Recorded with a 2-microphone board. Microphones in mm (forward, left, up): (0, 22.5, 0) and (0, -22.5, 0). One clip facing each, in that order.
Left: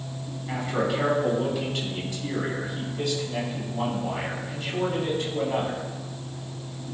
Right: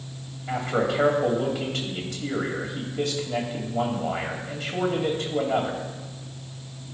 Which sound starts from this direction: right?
A man speaking, at 0.5 s.